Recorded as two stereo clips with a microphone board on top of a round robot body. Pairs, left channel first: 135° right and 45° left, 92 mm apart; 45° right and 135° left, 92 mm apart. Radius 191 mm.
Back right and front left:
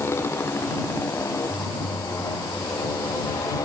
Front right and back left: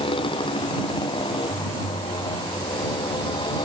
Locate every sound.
0.0 s a motorcycle: 70° right; by 3.6 s 80° right